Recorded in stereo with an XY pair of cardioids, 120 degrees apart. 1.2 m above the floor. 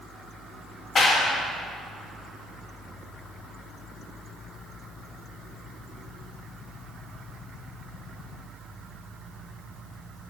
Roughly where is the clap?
Ahead left.